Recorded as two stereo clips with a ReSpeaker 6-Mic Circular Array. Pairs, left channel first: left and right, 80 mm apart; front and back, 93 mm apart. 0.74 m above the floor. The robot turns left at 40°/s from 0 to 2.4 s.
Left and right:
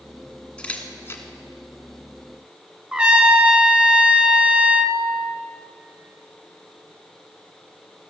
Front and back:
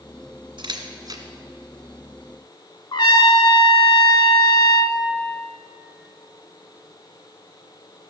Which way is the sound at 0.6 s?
165° left.